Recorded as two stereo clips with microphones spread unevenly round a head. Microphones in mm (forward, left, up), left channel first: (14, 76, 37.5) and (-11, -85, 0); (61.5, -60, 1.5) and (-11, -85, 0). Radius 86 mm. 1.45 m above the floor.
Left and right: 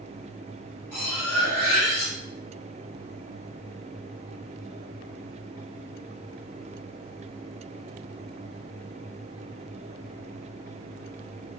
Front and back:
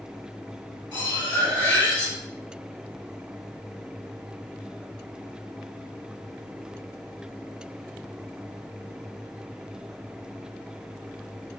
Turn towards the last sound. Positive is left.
turn(degrees=10)